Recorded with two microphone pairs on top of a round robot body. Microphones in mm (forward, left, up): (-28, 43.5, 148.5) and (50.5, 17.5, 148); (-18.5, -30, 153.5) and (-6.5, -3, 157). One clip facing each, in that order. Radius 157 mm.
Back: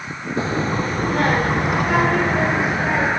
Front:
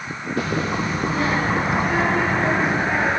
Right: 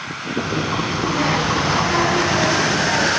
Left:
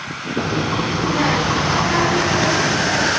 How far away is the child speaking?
About 1.4 m.